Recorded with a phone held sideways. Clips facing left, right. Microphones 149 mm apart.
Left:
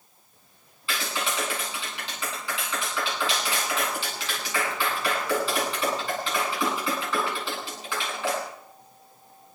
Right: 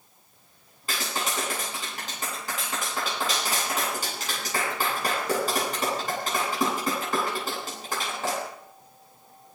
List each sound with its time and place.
0.9 s a clap: 45° right (ahead or behind), 10 m